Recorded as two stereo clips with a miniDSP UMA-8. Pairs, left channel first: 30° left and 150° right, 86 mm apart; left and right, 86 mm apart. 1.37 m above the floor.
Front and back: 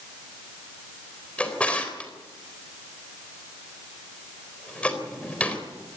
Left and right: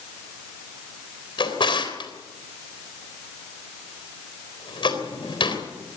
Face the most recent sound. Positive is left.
turn(degrees=105)